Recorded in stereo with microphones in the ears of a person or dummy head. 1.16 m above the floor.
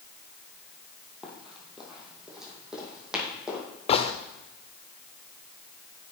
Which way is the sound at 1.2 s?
Centre (ahead or behind).